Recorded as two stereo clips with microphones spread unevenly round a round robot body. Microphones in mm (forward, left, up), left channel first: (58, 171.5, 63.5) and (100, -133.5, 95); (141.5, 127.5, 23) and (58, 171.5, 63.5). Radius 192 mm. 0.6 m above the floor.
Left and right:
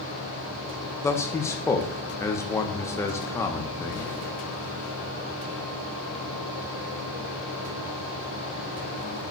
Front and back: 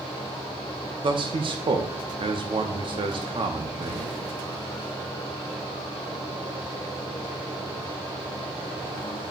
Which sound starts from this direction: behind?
A man speaking, at 1.0 s.